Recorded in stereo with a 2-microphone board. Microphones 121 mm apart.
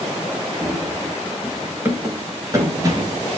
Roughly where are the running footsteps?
Centre.